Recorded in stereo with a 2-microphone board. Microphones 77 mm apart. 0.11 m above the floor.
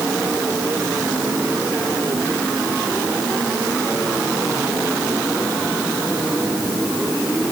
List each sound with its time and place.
Only background noise.